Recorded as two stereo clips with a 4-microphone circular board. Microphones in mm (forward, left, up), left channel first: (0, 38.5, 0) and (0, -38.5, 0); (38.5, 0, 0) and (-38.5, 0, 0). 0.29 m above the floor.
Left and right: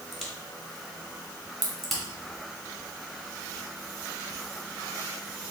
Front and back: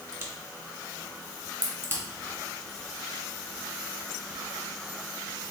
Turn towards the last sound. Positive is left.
turn(degrees=180)